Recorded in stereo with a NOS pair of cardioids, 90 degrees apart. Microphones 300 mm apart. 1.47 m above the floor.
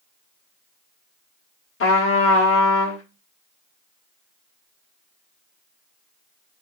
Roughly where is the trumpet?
Ahead left.